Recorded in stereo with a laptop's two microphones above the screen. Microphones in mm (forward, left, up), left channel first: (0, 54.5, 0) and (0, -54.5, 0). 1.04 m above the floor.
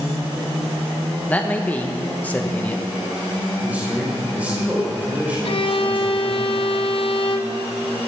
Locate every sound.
1.3 s a man speaking: 15° left (ahead or behind), 1.1 m
3.6 s a man speaking: 15° right (ahead or behind), 4 m
5.4 s a violin: 55° left (ahead or behind), 0.6 m